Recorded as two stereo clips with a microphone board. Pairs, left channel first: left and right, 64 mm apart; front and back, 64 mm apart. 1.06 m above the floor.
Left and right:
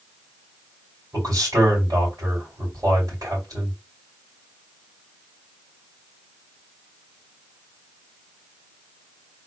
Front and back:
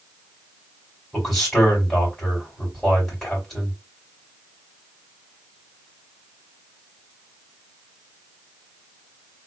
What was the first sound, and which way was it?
A man speaking, 80° right.